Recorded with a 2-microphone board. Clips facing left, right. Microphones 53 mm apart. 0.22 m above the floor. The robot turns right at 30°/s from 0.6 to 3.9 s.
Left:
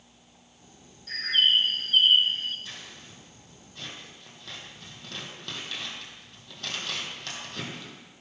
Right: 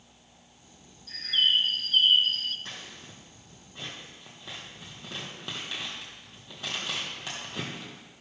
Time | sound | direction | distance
1.1 | a bird | 115° left | 0.7 m
2.6 | scissors | 55° right (ahead or behind) | 3 m